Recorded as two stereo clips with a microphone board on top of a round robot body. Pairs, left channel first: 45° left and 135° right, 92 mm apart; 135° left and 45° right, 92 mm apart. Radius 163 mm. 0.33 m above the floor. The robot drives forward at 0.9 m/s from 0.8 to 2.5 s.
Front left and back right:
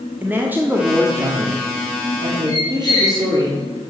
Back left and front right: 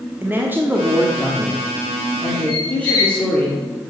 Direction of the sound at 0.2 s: 90° right.